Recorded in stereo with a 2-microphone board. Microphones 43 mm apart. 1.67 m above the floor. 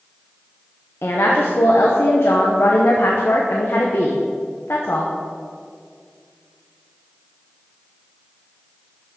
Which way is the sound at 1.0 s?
75° left (ahead or behind).